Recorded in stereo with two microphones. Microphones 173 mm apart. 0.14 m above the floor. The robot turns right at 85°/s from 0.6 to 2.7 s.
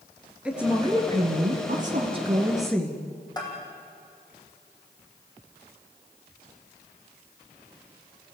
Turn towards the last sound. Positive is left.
turn(degrees=25)  # may be behind; listen again after turning